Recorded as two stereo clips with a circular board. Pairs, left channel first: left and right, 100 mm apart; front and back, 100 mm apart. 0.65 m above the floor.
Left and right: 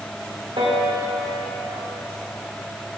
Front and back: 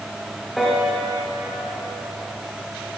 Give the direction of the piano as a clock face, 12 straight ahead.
3 o'clock.